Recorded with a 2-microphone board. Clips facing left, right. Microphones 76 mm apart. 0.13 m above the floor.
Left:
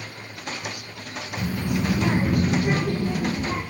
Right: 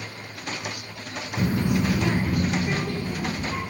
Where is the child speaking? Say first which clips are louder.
Right 3 dB; 40° right (ahead or behind), 1.1 m; by 3.6 s 50° left (ahead or behind), 2.5 m.